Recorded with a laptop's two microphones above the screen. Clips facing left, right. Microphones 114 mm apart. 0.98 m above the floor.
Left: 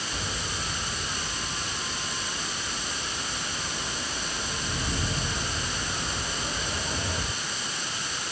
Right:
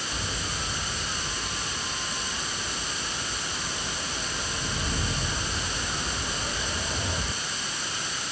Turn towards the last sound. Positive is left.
No sound to turn to.